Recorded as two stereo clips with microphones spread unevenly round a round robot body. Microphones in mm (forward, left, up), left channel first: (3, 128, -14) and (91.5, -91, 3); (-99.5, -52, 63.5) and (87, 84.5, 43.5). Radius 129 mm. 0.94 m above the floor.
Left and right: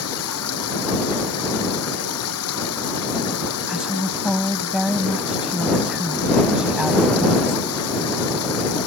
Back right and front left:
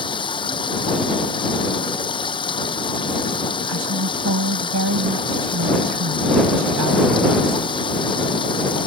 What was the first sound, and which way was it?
Running water, 150° left.